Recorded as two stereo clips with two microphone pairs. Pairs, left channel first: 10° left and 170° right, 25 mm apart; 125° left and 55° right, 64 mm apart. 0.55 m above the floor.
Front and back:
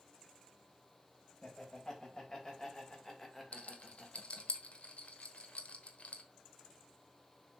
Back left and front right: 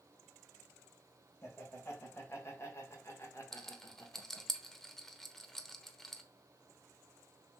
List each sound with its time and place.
1.4 s laughter: 75° left, 3.5 m; by 4.5 s 120° left, 1.7 m
3.5 s a rattle: 45° left, 1.0 m